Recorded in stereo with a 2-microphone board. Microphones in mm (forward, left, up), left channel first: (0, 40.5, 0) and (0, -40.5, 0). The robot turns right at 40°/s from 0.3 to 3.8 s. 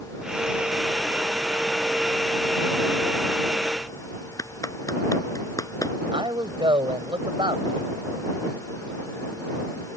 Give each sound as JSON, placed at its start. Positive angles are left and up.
{"t": 4.4, "sound": "a clap", "side_deg": 45}
{"t": 6.1, "sound": "a man speaking", "side_deg": -80}